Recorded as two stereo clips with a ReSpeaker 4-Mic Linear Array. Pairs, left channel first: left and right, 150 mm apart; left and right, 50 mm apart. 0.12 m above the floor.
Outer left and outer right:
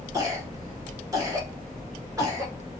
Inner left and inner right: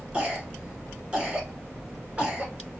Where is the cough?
25° right (ahead or behind), 1.1 m.